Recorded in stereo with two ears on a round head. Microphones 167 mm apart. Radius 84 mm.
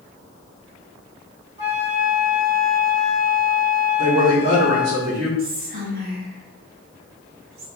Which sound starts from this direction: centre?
A flute, at 1.6 s.